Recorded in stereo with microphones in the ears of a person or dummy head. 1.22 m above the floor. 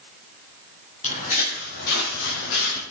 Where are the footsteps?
30° left (ahead or behind), 2.5 m; by 2.8 s 55° left (ahead or behind), 2 m.